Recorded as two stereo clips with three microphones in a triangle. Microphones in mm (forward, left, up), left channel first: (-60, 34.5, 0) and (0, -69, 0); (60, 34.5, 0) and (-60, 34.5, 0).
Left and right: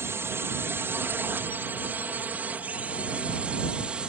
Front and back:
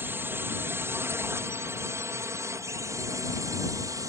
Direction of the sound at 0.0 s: 120° right.